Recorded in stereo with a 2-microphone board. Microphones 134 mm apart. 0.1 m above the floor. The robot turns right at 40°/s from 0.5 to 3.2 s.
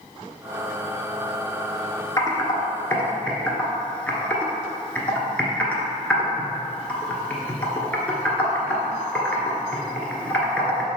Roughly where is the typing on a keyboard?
Left.